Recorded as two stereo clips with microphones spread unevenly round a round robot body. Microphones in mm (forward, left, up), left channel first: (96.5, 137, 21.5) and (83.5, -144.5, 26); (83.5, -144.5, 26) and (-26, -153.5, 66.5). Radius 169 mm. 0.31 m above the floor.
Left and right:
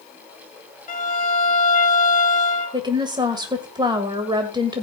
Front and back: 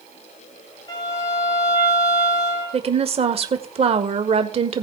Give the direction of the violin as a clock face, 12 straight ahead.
11 o'clock.